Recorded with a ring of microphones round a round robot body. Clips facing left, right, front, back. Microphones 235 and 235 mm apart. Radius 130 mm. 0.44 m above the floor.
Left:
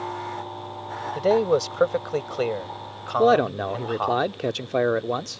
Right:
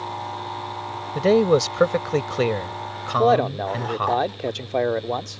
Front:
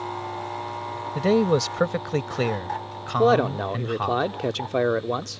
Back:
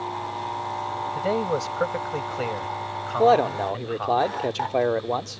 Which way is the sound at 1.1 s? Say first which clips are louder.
Right 3 dB, front 6 dB; 35° right.